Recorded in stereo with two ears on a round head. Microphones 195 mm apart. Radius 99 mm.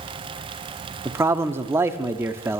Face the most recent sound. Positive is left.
turn(degrees=-10)  # may be behind; listen again after turning